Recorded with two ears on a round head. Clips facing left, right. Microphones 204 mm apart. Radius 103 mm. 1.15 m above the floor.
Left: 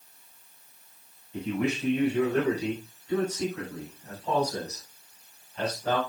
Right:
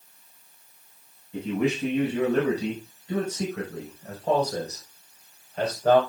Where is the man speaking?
70° right (ahead or behind), 7.5 m; by 6.0 s 45° right (ahead or behind), 6 m.